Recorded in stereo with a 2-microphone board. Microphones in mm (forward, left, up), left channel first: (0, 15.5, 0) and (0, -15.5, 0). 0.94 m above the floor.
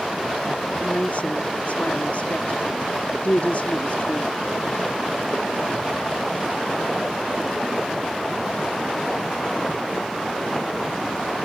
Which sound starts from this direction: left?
A woman speaking, at 0.8 s.